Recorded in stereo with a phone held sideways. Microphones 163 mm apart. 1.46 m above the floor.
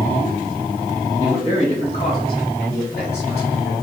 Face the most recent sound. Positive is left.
turn(degrees=85)